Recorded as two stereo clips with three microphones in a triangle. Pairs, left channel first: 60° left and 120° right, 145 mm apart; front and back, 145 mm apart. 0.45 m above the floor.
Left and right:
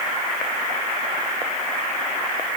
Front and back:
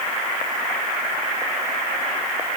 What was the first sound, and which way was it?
Only background noise.